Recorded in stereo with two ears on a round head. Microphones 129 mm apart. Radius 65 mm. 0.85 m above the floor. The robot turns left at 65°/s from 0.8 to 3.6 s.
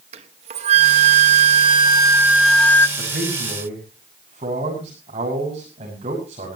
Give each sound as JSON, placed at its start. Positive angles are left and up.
{"t": 0.1, "sound": "a flute", "azimuth_deg": -70, "distance_m": 1.2}
{"t": 3.0, "sound": "a man speaking", "side_deg": -85, "distance_m": 6.0}